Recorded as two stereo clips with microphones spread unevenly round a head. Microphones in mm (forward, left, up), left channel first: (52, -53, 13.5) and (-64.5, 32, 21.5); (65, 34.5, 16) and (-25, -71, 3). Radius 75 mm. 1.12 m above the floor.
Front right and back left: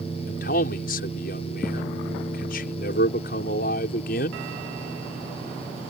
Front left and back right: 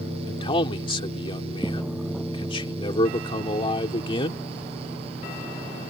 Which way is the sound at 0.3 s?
5° right.